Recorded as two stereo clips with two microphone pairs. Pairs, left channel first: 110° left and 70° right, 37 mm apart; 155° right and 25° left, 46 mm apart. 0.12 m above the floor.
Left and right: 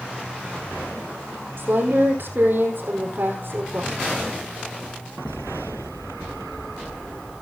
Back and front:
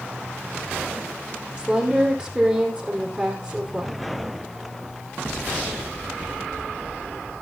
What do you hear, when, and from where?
1.6 s a woman speaking: 40° right, 4.5 m